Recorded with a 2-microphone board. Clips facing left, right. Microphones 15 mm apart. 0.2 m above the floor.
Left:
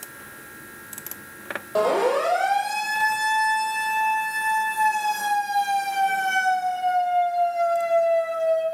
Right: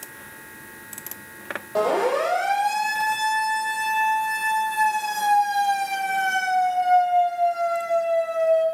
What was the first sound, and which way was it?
A siren, 5° left (ahead or behind).